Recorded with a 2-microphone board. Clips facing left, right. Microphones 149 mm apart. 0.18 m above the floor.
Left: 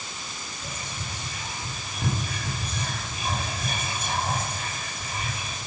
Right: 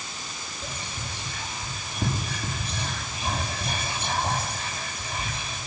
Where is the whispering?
30° right (ahead or behind), 6 m.